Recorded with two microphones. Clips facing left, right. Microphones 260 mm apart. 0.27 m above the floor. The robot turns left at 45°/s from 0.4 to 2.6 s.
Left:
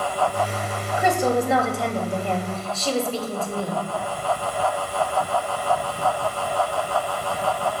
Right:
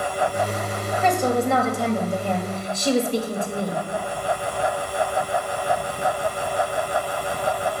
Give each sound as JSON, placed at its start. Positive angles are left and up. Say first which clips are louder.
{"t": 1.0, "sound": "a woman speaking", "louder": "even", "side_deg": 10, "distance_m": 1.0}